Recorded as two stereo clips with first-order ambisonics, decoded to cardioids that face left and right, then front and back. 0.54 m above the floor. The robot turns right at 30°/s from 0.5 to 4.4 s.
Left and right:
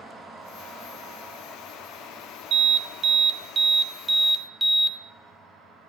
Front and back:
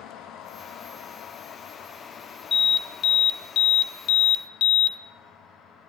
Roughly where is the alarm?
Right.